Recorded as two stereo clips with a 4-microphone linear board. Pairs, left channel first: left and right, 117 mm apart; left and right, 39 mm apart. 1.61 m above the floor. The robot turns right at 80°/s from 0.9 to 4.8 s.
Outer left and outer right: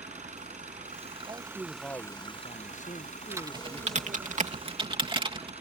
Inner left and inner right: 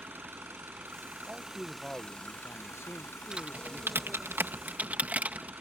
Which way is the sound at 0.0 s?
70° right.